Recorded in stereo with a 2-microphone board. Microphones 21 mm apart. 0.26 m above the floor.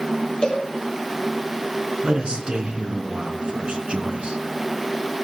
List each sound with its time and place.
0.4 s a cowbell: 50° left (ahead or behind), 5 m
2.0 s a man speaking: 60° right (ahead or behind), 3.5 m